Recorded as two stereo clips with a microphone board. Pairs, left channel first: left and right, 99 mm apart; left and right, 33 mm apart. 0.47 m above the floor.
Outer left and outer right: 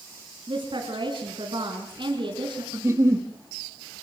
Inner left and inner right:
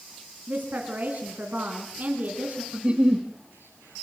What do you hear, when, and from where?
0.5 s a woman speaking: 55° right (ahead or behind), 4.5 m
2.7 s a giggle: 30° right (ahead or behind), 2.0 m